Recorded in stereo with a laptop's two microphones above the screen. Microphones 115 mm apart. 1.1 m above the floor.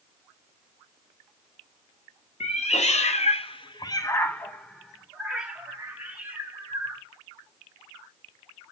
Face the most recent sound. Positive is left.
turn(degrees=-20)  # may be behind; listen again after turning